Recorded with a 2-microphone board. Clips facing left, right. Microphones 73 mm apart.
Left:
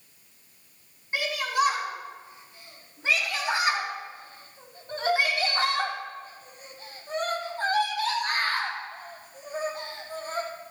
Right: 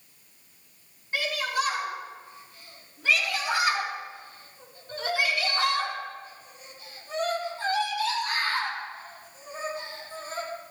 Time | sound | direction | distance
1.1 | a shout | 15° left (ahead or behind) | 6 m